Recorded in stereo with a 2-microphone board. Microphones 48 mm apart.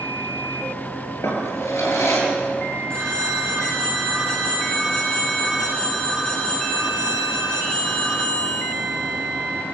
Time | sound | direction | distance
1.2 | a drawer | 65° left (ahead or behind) | 7 m
2.9 | a phone ringing | 20° left (ahead or behind) | 5 m